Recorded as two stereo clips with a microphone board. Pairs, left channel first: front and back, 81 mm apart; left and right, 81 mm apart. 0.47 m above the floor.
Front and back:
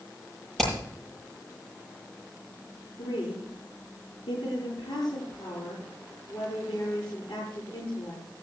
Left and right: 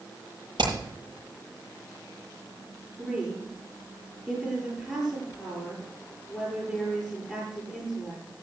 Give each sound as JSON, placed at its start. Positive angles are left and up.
{"t": 0.6, "sound": "hammering", "azimuth_deg": -85, "distance_m": 9.5}
{"t": 3.0, "sound": "a woman speaking", "azimuth_deg": -10, "distance_m": 9.5}